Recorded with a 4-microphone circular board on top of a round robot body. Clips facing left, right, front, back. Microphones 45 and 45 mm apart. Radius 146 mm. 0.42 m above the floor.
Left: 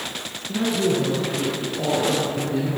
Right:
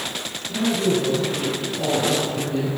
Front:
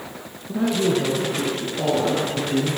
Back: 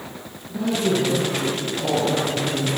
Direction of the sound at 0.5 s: 25° left.